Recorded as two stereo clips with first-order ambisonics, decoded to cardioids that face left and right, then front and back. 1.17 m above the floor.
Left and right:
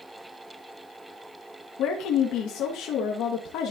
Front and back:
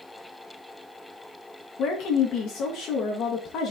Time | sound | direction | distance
1.8 | a woman speaking | 50° left | 1.2 m